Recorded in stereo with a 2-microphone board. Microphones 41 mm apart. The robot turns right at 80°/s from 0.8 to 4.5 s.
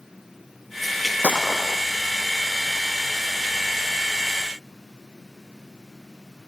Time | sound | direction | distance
1.2 | a gunshot | 40° right | ?